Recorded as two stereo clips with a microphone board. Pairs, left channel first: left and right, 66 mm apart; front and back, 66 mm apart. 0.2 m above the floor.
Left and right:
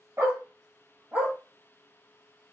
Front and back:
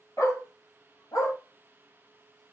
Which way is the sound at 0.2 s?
40° right.